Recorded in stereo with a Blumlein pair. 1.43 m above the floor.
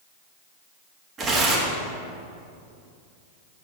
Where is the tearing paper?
25° right, 1.6 m.